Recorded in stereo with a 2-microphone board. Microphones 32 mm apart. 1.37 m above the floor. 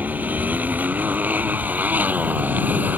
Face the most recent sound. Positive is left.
turn(degrees=-65)  # may be behind; listen again after turning